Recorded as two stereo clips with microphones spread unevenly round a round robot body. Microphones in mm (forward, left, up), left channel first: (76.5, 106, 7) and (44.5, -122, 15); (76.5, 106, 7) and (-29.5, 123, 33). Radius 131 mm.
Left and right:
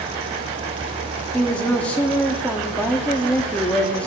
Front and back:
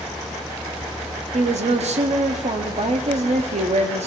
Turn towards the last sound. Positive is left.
turn(degrees=165)